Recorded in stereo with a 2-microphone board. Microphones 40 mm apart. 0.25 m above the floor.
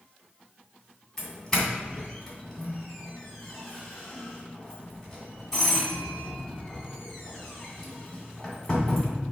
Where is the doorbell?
10° left (ahead or behind), 2 m.